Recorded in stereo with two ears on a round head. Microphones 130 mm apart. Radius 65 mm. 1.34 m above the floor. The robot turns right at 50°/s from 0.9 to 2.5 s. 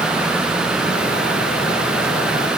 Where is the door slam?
I don't hear a door slam.